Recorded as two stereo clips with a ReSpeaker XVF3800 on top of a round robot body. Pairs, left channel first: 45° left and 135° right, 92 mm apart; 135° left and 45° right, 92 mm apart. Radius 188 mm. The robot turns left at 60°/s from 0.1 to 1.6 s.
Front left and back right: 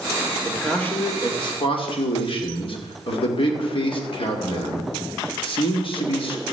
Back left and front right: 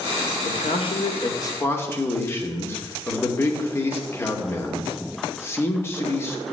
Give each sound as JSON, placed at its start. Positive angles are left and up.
{"t": 0.5, "sound": "a man speaking", "azimuth_deg": 140, "distance_m": 2.5}